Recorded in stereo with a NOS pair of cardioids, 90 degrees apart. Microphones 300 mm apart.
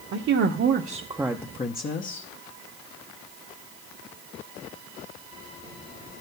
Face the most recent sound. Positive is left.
turn(degrees=50)